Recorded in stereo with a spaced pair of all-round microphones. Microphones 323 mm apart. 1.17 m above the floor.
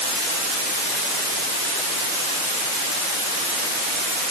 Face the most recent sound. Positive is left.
No sound to turn to.